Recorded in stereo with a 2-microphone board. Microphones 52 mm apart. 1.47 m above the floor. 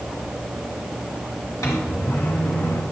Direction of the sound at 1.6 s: 75° left (ahead or behind).